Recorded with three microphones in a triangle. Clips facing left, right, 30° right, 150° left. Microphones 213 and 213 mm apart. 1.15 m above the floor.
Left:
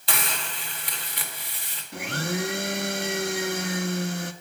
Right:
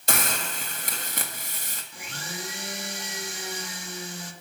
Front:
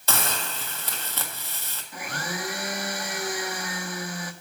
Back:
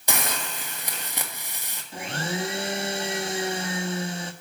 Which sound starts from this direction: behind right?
A hiss, at 0.1 s.